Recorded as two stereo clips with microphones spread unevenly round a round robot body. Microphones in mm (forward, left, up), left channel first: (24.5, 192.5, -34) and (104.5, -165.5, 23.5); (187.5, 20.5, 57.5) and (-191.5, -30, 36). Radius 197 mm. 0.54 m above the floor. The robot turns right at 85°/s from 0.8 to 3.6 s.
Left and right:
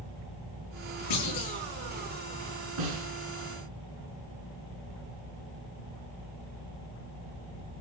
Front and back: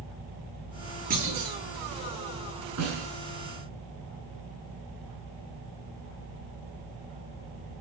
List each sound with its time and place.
1.1 s a clunk: 115° left, 9.5 m; by 1.6 s 155° left, 9.5 m
2.8 s a snare drum: 125° right, 7.5 m; by 3.1 s 100° right, 7.5 m